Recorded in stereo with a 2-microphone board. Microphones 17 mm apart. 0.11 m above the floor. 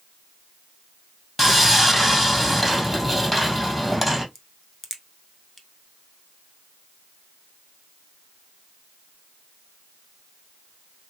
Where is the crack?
10° left (ahead or behind), 0.7 m.